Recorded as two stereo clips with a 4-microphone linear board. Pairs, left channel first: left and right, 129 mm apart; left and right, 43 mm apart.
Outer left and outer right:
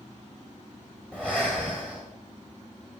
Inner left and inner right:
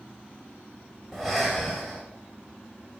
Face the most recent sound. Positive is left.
turn(degrees=10)  # may be behind; listen again after turning